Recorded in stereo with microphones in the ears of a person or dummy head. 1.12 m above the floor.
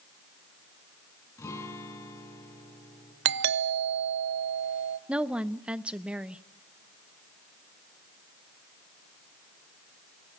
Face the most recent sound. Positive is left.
turn(degrees=-5)  # may be behind; listen again after turning